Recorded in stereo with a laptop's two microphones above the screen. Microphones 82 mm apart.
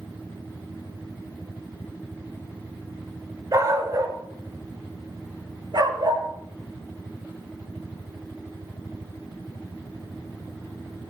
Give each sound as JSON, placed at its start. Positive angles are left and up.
{"t": 3.5, "sound": "a dog barking", "side_deg": -45, "distance_m": 5.5}